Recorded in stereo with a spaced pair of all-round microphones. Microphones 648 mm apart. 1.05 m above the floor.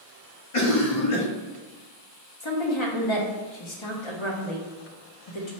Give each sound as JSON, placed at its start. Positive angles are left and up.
{"t": 0.5, "sound": "a cough", "side_deg": 55, "distance_m": 1.0}
{"t": 2.4, "sound": "a woman speaking", "side_deg": 45, "distance_m": 0.9}